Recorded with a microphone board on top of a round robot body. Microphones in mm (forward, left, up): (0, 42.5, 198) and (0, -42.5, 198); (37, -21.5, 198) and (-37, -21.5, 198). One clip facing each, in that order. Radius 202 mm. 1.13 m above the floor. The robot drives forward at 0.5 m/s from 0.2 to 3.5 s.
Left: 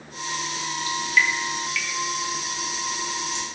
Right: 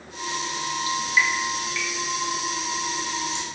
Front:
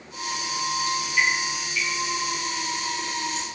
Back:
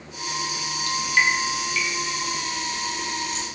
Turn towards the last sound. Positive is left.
turn(degrees=-165)